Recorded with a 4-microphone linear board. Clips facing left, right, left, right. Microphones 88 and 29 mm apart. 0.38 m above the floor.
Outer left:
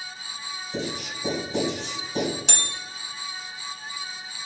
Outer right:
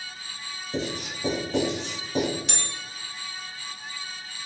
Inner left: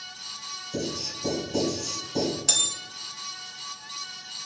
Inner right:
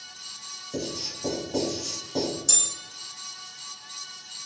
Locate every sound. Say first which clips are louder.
0.7 s writing: outer right 1 dB, inner left 1 dB; 35° right (ahead or behind), 1.9 m
2.5 s a bell: outer left 2 dB, inner left 5 dB; 80° left, 0.5 m